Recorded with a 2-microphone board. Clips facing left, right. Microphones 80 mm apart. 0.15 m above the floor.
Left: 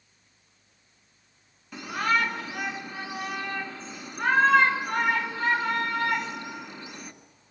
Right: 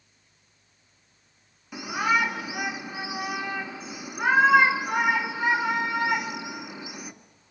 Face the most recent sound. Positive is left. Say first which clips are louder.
# right 1 dB
turn(degrees=-10)  # may be behind; listen again after turning